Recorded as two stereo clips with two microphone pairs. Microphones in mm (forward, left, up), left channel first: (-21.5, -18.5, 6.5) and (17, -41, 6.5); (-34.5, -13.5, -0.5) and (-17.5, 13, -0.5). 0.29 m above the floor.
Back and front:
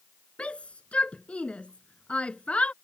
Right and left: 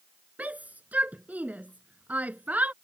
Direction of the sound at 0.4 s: 90° left.